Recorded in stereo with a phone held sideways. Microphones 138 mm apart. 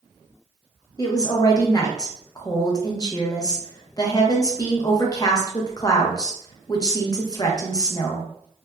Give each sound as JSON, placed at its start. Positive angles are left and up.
{"t": 1.0, "sound": "a woman speaking", "side_deg": 30, "distance_m": 0.7}